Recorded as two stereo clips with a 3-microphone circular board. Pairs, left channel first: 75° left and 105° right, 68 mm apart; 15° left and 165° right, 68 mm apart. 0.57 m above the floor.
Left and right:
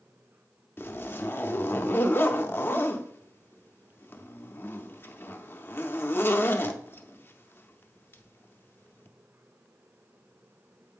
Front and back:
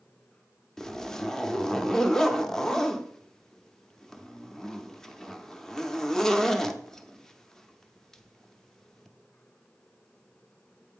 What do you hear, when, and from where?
0.8 s a zipper: 90° left, 0.5 m